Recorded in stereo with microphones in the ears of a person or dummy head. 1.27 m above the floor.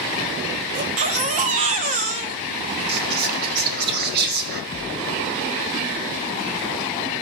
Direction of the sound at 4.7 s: 25° left (ahead or behind).